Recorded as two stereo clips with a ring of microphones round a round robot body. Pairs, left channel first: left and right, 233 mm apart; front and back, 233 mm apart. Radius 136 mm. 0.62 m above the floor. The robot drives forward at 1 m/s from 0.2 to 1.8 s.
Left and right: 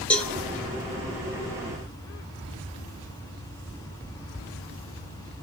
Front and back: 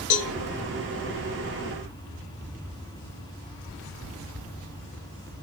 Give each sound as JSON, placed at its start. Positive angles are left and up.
{"t": 0.1, "sound": "a cowbell", "azimuth_deg": 5, "distance_m": 1.0}